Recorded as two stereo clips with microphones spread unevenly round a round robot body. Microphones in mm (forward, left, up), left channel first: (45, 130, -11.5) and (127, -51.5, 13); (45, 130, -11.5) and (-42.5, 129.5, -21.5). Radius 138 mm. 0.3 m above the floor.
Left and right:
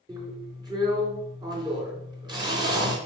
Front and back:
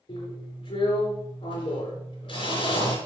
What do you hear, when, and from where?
0.1 s a drill: 5° left, 4 m